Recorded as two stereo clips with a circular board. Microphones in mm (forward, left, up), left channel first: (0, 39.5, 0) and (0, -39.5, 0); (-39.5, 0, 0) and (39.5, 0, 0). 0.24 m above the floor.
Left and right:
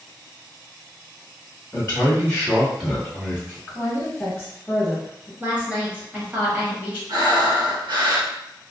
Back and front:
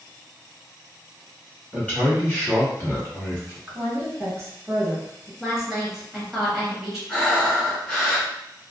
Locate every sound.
1.7 s a man speaking: 120° left, 1.6 m; by 3.6 s 150° right, 1.6 m
3.7 s a woman speaking: 40° left, 1.5 m
5.4 s a woman speaking: 80° right, 1.0 m
7.1 s breathing: 105° right, 1.2 m